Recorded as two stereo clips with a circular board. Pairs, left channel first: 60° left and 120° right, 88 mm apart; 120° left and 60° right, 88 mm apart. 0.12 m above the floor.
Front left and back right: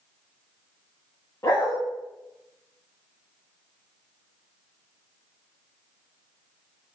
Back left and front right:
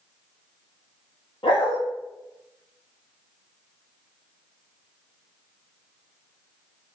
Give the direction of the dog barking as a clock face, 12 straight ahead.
8 o'clock.